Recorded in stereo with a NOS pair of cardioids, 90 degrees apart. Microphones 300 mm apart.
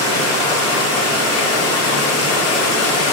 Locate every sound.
0.0 s running water: 65° left, 0.8 m